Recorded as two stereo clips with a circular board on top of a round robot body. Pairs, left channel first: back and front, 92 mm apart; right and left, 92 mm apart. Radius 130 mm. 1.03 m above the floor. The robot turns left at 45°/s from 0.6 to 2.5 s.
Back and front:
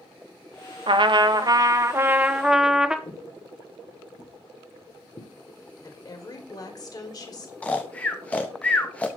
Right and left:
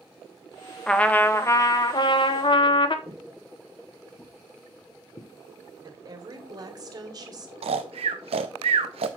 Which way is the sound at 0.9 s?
10° right.